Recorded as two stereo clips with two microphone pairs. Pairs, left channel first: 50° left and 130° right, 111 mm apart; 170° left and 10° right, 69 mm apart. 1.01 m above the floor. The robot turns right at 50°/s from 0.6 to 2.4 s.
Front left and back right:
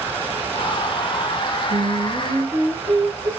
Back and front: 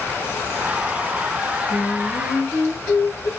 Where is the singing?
165° right, 2.5 m; by 3.3 s 130° right, 2.5 m.